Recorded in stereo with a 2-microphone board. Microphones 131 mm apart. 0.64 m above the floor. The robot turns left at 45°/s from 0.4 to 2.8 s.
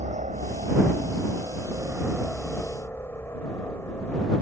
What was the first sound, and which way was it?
A helicopter, 70° right (ahead or behind).